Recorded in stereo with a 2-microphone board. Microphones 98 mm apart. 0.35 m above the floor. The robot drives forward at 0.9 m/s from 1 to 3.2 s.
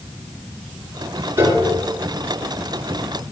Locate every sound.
1.4 s a piano: 35° right (ahead or behind), 5 m